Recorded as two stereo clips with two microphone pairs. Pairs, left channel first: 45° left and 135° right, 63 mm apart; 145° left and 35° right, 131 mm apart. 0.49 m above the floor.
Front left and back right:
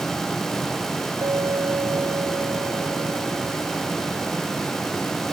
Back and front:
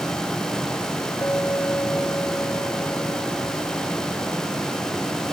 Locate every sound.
1.2 s a clink: 140° right